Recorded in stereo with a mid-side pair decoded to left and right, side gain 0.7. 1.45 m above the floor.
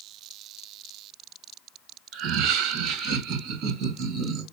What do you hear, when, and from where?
2.1 s laughter: 55° right, 1.9 m; by 4.4 s 50° right, 3 m